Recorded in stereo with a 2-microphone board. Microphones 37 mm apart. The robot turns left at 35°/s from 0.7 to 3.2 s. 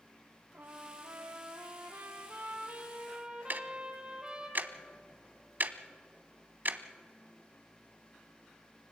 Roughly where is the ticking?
Right.